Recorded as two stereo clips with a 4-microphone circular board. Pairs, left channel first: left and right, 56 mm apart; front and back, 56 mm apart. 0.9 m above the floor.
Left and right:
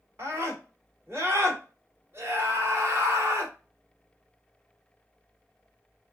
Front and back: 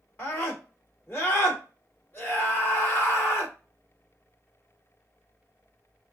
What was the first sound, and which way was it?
A scream, 50° right.